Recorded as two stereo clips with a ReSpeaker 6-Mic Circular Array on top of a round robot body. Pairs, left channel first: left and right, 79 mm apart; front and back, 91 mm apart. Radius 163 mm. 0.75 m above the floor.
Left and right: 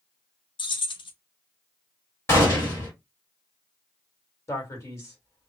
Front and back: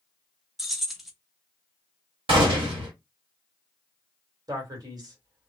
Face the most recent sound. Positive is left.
turn(degrees=140)